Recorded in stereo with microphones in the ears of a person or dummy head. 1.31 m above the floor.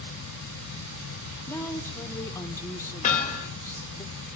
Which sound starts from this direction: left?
Hammering, at 3.0 s.